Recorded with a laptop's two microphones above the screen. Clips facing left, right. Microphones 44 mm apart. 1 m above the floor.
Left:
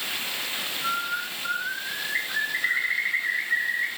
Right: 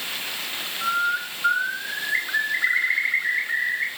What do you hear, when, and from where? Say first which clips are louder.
0.8 s a bird: right 6 dB; 55° right (ahead or behind), 5 m